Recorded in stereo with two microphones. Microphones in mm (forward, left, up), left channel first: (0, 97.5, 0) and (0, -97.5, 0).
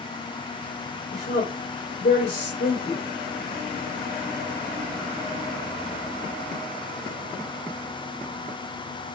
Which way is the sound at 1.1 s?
60° left (ahead or behind).